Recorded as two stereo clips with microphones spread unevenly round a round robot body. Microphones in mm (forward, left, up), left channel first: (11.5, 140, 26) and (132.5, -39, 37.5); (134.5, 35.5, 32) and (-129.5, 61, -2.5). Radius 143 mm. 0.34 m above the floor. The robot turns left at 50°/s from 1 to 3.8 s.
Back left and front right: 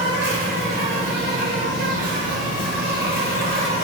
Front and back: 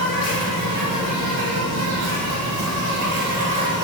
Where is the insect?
120° right, 0.9 m; by 3.8 s 100° left, 0.9 m.